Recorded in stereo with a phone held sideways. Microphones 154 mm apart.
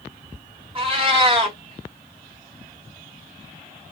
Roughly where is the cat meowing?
Right.